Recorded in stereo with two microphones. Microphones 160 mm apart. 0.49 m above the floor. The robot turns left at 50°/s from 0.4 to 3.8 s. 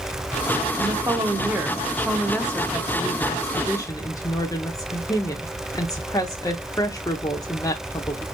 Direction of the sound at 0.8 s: 20° right (ahead or behind).